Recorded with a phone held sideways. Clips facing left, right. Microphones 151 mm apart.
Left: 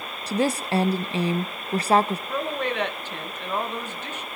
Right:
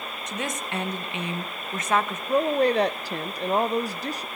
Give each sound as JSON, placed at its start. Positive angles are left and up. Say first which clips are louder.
{"t": 0.3, "sound": "a woman speaking", "louder": "left 9 dB", "side_deg": 35, "distance_m": 0.6}
{"t": 2.3, "sound": "a woman speaking", "louder": "right 6 dB", "side_deg": -40, "distance_m": 0.8}